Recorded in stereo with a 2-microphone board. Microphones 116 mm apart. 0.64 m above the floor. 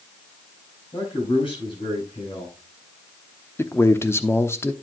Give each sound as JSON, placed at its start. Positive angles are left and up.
{"t": 0.9, "sound": "a man speaking", "side_deg": 50, "distance_m": 7.0}
{"t": 3.6, "sound": "a man speaking", "side_deg": 20, "distance_m": 0.8}